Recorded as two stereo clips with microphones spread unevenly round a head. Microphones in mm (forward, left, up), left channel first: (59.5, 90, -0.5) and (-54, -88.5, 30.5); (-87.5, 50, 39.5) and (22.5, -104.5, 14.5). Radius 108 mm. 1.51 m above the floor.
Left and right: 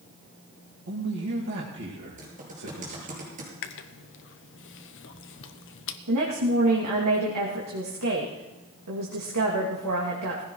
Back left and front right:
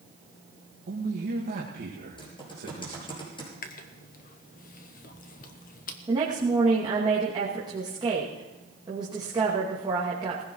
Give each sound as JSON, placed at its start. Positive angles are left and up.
{"t": 0.9, "sound": "a man speaking", "azimuth_deg": -85, "distance_m": 2.0}
{"t": 2.2, "sound": "typing on a keyboard", "azimuth_deg": -175, "distance_m": 6.5}
{"t": 3.6, "sound": "chewing", "azimuth_deg": 75, "distance_m": 0.9}
{"t": 6.1, "sound": "a woman speaking", "azimuth_deg": -120, "distance_m": 2.5}